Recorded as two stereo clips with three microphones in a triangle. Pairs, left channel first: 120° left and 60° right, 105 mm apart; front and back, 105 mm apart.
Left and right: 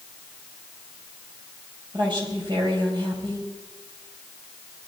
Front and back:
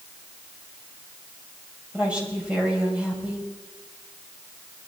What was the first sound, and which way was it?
A woman speaking, 100° right.